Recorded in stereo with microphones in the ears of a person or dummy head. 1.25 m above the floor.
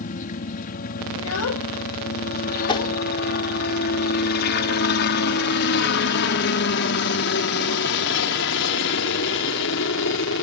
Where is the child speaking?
80° left.